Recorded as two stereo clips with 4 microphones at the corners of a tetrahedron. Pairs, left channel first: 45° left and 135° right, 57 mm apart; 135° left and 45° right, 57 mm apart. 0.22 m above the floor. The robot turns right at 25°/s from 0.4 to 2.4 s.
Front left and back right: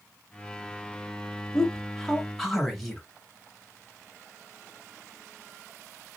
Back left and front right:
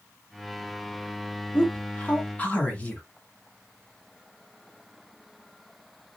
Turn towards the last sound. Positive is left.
turn(degrees=135)